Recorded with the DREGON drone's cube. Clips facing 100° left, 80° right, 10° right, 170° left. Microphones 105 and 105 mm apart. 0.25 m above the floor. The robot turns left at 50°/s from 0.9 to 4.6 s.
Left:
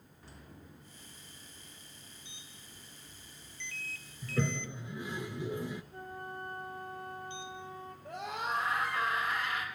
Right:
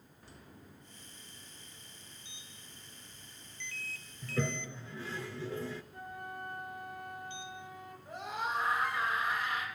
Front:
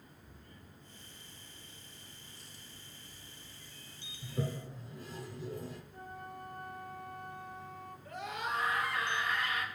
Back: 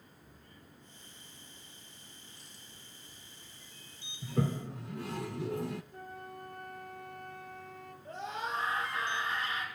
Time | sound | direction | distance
4.2 | a toilet flushing | 165° right | 1.1 m
5.9 | a flute | 155° left | 2.5 m
8.1 | a scream | 110° left | 7.5 m